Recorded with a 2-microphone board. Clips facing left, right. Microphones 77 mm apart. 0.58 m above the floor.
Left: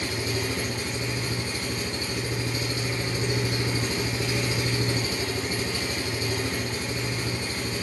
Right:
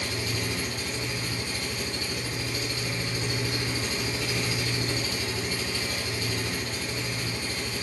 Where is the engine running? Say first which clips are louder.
Left 3 dB; 30° left (ahead or behind), 1.6 m.